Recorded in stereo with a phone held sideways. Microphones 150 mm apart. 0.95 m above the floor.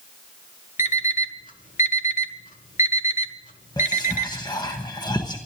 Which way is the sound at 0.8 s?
60° left (ahead or behind).